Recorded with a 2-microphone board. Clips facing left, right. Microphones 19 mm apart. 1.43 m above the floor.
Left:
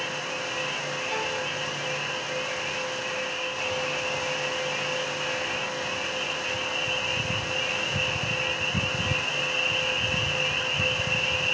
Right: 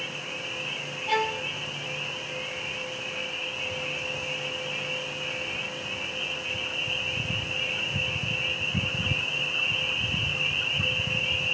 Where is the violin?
50° right (ahead or behind), 2.5 m.